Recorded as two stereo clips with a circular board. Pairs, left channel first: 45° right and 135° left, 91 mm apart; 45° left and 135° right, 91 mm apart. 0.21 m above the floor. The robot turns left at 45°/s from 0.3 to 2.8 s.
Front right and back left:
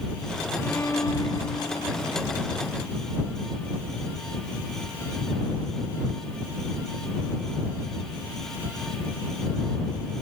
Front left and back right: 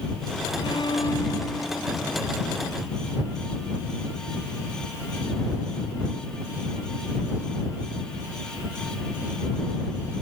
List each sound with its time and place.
0.6 s a violin: 25° left; by 2.1 s 40° right